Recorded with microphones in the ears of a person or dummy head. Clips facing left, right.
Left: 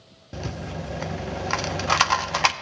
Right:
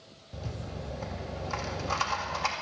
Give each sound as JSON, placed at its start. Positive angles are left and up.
{"t": 0.3, "sound": "a rattle", "side_deg": 80, "distance_m": 0.6}